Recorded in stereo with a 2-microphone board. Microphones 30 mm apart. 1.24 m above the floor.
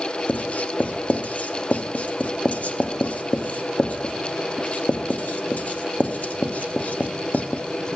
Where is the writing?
55° left (ahead or behind), 1.0 m.